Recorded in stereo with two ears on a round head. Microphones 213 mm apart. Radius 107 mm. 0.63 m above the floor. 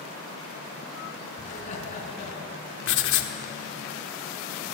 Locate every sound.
1.4 s laughter: 35° left (ahead or behind), 6 m
2.9 s writing: 60° left (ahead or behind), 1.6 m